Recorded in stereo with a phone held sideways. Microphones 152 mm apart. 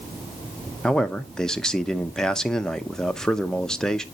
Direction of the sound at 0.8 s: 5° left (ahead or behind).